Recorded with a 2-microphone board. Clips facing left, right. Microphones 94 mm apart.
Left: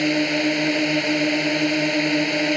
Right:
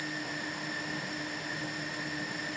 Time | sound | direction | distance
0.0 | a drone | 80° left | ?